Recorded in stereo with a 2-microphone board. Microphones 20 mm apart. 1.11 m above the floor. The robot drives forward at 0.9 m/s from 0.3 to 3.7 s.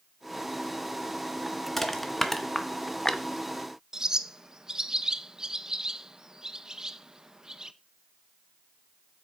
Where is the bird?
30° right (ahead or behind), 0.7 m.